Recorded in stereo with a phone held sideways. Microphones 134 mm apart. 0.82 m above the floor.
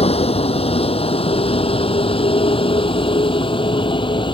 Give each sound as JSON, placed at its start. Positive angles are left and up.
{"t": 0.0, "sound": "a vehicle", "side_deg": 50}